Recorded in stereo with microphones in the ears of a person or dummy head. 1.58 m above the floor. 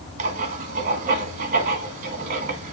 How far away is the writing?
About 1.5 m.